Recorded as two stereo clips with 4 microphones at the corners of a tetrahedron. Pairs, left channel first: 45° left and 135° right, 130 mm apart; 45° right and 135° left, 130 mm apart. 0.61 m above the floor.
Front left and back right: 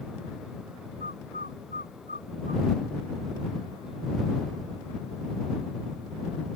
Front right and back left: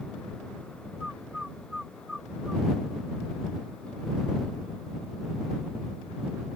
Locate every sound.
1.0 s a bird: 140° right